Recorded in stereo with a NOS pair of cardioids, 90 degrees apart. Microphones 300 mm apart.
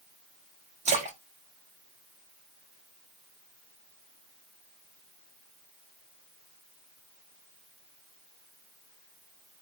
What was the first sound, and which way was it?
A splash, 20° right.